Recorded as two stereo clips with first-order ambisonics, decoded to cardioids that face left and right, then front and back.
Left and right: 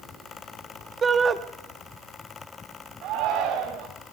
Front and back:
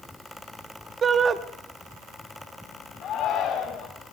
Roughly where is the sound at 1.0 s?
Behind right.